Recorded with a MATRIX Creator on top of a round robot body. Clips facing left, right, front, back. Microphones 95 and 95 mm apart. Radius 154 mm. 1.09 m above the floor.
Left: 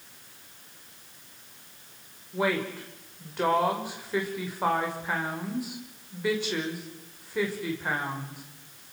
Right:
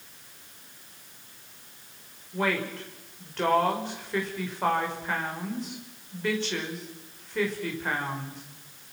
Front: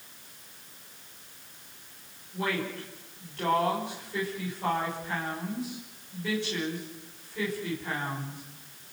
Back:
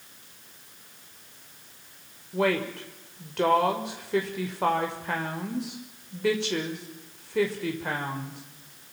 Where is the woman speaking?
170° left, 5.5 m.